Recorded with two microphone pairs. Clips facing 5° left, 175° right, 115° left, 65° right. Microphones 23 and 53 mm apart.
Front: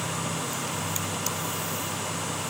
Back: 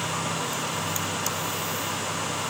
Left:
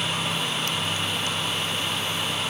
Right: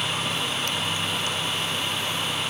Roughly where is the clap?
I don't hear a clap.